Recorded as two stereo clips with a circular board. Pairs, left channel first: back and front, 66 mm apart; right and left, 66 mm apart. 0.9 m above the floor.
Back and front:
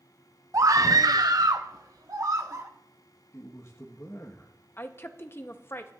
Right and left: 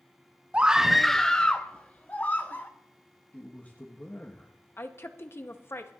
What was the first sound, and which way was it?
A scream, 25° left.